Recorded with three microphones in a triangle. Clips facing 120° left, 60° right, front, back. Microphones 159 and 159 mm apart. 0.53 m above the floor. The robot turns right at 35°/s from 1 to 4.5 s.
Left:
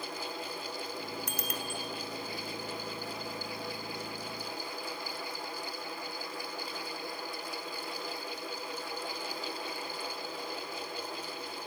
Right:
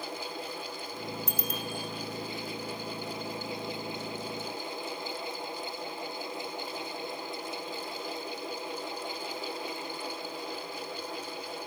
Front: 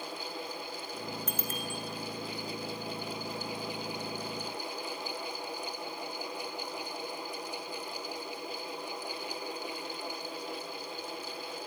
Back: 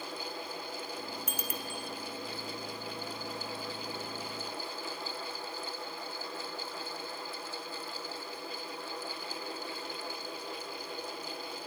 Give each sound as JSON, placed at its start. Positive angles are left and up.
{"t": 1.3, "sound": "a bicycle bell", "azimuth_deg": 100, "distance_m": 2.0}